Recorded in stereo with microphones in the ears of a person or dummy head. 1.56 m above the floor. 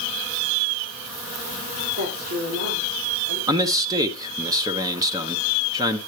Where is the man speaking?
20° right (ahead or behind), 1.0 m.